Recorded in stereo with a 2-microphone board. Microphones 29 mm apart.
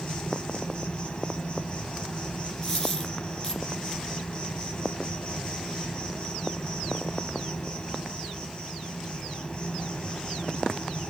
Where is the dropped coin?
15° left (ahead or behind), 6 m.